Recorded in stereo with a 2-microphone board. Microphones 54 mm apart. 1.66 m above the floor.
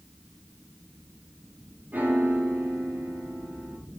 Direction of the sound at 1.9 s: 35° right (ahead or behind).